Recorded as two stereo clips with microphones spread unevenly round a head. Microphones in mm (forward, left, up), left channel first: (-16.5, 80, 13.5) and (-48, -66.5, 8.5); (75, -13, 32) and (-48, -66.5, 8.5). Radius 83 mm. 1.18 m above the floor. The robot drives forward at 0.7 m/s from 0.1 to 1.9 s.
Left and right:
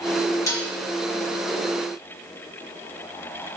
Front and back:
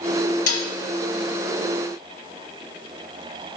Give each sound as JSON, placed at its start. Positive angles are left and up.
{"t": 0.5, "sound": "dishes clattering", "azimuth_deg": 5, "distance_m": 1.4}